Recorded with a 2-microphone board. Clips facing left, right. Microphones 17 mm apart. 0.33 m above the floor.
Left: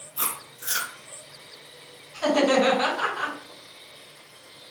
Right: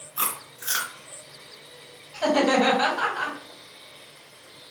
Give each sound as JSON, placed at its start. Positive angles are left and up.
{"t": 0.2, "sound": "chewing", "side_deg": -60, "distance_m": 1.4}
{"t": 2.1, "sound": "laughter", "side_deg": -55, "distance_m": 1.8}